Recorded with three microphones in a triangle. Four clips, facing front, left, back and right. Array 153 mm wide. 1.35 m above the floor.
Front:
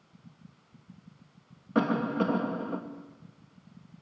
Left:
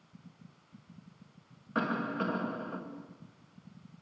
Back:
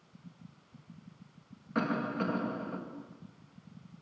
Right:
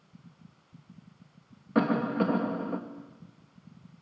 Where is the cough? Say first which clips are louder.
Right 7 dB, front 5 dB; 50° right, 2 m.